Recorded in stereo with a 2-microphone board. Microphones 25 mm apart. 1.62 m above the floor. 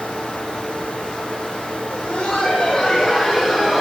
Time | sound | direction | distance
1.9 | laughter | 60° left (ahead or behind) | 1.8 m